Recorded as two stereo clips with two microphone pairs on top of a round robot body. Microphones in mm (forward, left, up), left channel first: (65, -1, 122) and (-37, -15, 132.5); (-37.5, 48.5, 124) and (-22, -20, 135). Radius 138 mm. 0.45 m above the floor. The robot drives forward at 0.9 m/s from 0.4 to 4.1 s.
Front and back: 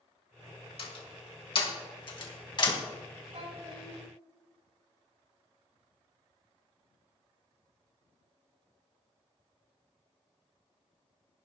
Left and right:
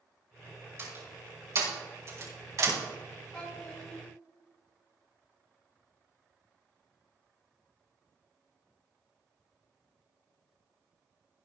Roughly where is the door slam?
Ahead.